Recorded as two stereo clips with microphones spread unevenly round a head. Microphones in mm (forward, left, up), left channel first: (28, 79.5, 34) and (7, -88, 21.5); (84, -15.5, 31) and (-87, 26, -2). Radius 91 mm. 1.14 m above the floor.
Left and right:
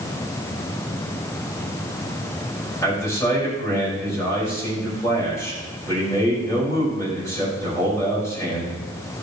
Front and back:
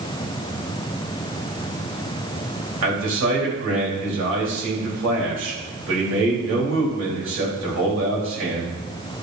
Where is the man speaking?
160° left, 4.5 m.